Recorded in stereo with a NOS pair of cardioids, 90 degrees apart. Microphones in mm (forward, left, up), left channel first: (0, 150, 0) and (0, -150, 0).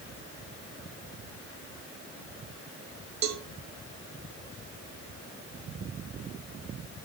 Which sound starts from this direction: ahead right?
A cowbell, at 3.2 s.